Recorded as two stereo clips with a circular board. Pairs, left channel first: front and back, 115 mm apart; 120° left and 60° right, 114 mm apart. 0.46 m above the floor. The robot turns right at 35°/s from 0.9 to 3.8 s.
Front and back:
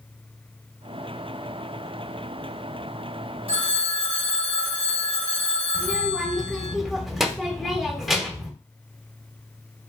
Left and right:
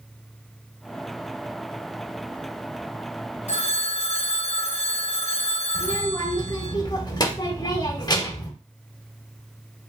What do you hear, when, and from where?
3.5 s a phone ringing: 145° left, 1.2 m; by 6.8 s 155° left, 1.2 m
5.8 s a child speaking: 95° left, 1.0 m